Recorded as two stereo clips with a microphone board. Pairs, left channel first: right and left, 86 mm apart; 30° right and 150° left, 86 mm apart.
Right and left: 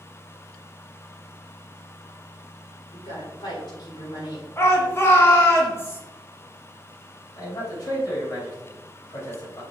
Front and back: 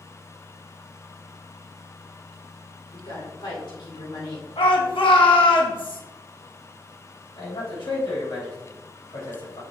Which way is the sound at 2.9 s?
60° right.